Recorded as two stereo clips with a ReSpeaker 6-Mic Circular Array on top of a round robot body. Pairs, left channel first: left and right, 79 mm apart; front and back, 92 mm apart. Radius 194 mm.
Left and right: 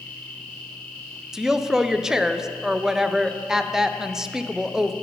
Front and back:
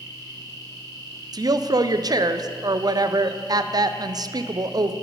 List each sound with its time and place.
0.0 s an insect: 160° left, 1.6 m
1.3 s a woman speaking: 170° right, 0.6 m